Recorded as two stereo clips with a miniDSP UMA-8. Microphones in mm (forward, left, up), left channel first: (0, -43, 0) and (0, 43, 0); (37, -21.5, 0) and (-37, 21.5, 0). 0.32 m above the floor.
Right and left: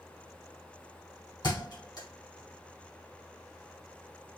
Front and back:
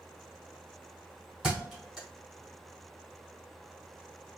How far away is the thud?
About 3 m.